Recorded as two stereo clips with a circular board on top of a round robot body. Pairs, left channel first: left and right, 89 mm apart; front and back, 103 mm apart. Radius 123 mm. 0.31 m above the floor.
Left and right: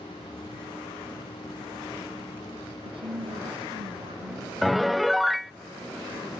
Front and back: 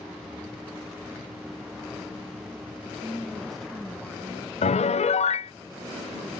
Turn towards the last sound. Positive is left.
turn(degrees=0)